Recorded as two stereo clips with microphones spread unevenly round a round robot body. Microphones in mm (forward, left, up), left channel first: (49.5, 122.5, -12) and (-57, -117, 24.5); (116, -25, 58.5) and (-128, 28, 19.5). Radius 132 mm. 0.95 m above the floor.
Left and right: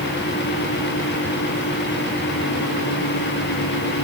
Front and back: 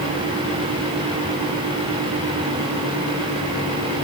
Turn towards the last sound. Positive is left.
No sound to turn to.